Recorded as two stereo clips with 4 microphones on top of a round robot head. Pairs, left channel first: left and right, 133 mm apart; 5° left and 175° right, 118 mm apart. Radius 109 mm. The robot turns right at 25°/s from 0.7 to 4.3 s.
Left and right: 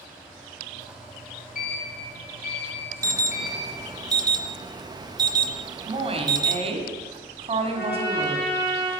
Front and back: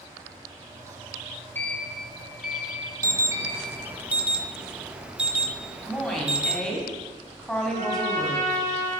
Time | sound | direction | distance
1.6 | a sliding door | 80° left | 3.5 m
3.0 | an alarm | 135° right | 0.6 m
5.9 | a woman speaking | 80° right | 1.7 m
7.7 | a trumpet | 170° right | 3.5 m